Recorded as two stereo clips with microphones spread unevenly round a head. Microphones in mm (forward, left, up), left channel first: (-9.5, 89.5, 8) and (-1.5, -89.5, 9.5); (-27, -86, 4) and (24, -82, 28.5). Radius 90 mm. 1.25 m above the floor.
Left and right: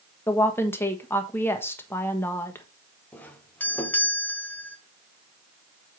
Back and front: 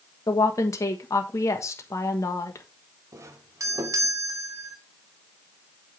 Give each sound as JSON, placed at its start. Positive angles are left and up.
{"t": 0.3, "sound": "a woman speaking", "azimuth_deg": 170, "distance_m": 1.4}
{"t": 3.1, "sound": "a doorbell", "azimuth_deg": 15, "distance_m": 1.1}